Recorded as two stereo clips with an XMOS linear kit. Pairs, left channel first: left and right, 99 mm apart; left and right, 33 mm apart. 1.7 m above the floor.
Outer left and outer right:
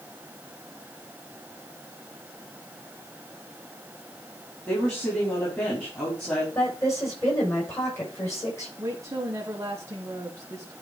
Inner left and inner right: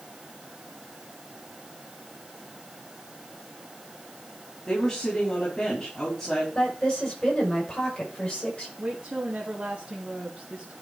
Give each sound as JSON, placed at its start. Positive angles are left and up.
{"t": 4.7, "sound": "a woman speaking", "side_deg": 20, "distance_m": 4.5}
{"t": 6.5, "sound": "a woman speaking", "side_deg": 30, "distance_m": 6.0}
{"t": 8.8, "sound": "a woman speaking", "side_deg": -30, "distance_m": 1.6}